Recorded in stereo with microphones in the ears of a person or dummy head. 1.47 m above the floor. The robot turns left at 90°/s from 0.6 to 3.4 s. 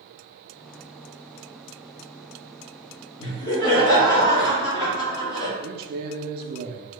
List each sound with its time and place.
3.2 s laughter: 40° left (ahead or behind), 1.6 m; by 5.5 s 20° left (ahead or behind), 1.6 m
5.6 s a man speaking: 60° right (ahead or behind), 0.7 m